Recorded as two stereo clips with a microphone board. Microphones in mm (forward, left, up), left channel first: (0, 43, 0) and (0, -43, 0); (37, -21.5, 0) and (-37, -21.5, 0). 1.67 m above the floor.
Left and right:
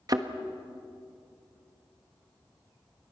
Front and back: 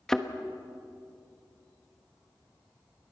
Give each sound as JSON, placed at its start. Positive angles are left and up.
{"t": 0.1, "sound": "a thud", "azimuth_deg": -80, "distance_m": 1.2}